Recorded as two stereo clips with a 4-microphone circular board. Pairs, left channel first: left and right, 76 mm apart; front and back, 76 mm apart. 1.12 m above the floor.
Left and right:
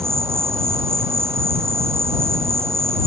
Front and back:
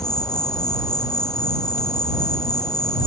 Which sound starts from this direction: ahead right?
An insect, at 0.0 s.